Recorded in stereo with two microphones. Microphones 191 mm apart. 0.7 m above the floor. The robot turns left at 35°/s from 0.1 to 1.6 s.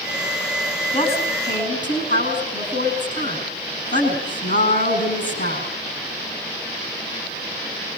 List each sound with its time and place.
0.9 s a woman speaking: 20° left (ahead or behind), 8 m; by 5.7 s 45° left (ahead or behind), 8 m